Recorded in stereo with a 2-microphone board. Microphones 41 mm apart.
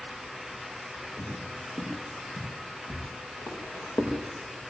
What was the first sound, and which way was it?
Footsteps, 75° left (ahead or behind).